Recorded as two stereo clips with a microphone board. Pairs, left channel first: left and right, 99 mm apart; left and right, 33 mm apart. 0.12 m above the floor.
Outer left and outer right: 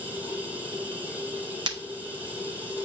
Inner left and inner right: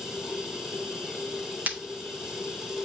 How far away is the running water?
About 1.9 m.